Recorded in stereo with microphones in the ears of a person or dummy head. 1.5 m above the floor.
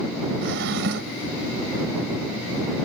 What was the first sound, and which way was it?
A drawer, 55° right (ahead or behind).